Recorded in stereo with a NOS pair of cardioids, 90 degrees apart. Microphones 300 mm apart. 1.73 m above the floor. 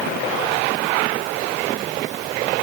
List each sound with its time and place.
Only background noise.